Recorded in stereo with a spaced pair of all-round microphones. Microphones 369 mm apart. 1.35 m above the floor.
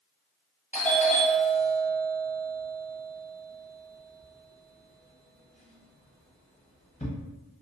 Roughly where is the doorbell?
Centre.